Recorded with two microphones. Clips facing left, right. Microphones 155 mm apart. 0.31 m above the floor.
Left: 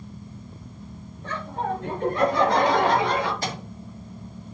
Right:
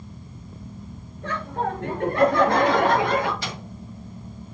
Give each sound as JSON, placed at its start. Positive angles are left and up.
{"t": 1.2, "sound": "laughter", "side_deg": -75, "distance_m": 4.0}
{"t": 3.4, "sound": "a microwave", "side_deg": 45, "distance_m": 1.4}